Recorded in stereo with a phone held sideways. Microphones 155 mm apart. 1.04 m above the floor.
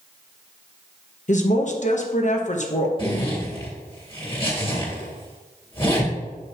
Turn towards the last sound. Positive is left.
turn(degrees=35)  # may be behind; listen again after turning